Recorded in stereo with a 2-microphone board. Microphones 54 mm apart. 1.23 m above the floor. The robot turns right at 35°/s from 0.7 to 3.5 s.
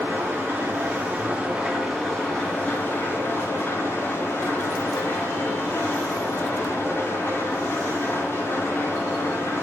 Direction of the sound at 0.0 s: 45° right.